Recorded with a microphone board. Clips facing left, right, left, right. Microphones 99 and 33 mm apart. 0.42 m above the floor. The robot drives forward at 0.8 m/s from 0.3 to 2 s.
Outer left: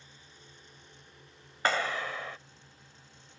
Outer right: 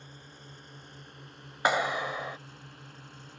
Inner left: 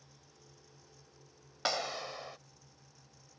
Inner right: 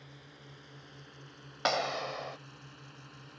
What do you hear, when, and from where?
0.0 s a drone: 55° right (ahead or behind); by 3.4 s 70° right (ahead or behind)
1.6 s a clap: 15° right (ahead or behind); by 2.4 s 20° right (ahead or behind)